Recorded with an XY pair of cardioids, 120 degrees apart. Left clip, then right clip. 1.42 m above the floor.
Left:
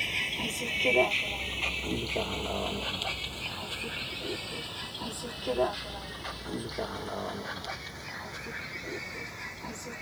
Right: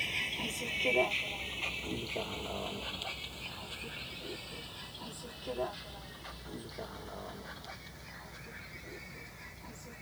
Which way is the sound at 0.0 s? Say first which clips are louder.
Left 4 dB; 25° left.